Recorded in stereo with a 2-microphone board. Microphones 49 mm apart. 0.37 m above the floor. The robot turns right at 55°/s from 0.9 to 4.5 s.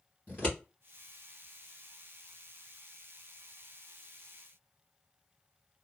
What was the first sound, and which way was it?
Scissors, 35° left (ahead or behind).